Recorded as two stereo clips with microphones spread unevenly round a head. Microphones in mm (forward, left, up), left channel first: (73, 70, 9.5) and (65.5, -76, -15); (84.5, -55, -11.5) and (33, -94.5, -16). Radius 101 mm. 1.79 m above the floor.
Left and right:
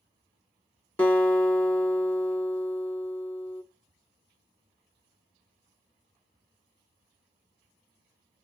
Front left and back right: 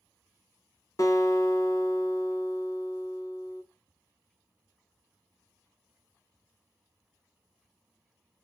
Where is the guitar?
15° left, 1.3 m.